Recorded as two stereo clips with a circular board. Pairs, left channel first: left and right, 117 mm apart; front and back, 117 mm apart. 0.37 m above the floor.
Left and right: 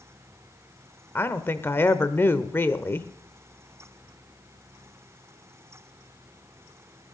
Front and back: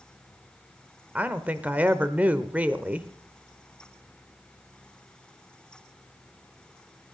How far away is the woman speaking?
About 0.9 m.